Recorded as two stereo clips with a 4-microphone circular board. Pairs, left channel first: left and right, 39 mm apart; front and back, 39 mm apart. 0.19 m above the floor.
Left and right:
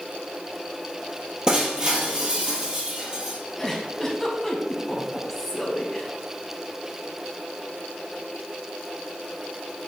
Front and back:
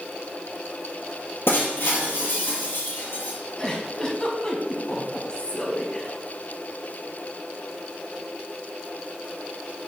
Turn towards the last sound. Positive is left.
turn(degrees=20)